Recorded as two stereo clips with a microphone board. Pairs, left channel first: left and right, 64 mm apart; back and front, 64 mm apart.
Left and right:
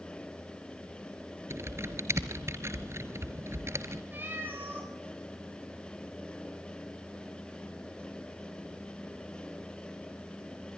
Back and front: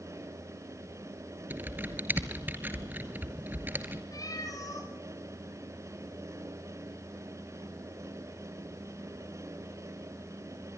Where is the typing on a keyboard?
55° right, 1.7 m.